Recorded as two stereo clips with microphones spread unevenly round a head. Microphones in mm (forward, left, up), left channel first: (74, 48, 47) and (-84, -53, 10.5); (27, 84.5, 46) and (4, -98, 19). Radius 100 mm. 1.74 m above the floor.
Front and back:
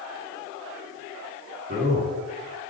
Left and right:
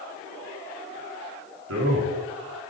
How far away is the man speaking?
About 4 m.